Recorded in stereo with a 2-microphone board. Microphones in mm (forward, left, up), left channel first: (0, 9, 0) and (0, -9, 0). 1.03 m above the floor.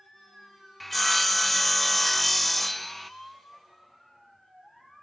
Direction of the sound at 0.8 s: 10° left (ahead or behind).